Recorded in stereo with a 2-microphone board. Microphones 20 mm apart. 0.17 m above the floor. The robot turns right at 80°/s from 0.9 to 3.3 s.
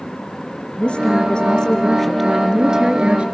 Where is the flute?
I don't hear a flute.